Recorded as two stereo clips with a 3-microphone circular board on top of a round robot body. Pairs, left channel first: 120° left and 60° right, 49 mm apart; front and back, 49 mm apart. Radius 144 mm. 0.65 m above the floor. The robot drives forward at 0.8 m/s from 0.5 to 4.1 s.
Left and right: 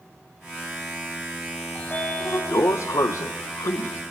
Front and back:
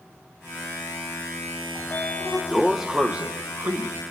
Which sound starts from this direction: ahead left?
A sliding door, at 1.8 s.